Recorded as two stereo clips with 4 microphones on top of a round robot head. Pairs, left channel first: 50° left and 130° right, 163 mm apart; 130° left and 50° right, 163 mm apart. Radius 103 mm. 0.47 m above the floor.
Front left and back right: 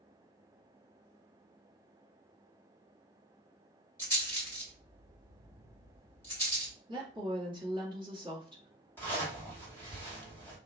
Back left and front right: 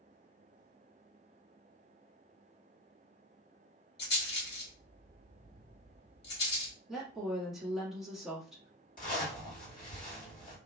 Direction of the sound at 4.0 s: 125° left.